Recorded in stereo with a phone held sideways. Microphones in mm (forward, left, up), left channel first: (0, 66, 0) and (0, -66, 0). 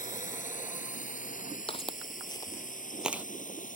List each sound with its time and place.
0.0 s a drone: 75° left (ahead or behind); by 3.8 s 85° left
1.7 s footsteps: 45° left (ahead or behind); by 3.2 s 15° right (ahead or behind)